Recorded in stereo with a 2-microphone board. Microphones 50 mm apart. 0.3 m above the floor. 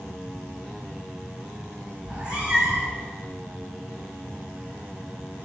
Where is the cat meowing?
25° right (ahead or behind), 5 m.